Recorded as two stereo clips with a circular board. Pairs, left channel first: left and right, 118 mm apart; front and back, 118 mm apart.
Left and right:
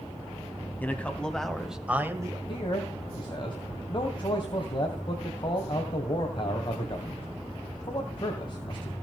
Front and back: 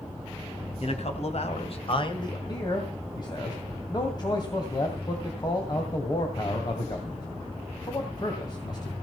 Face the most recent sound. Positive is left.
turn(degrees=50)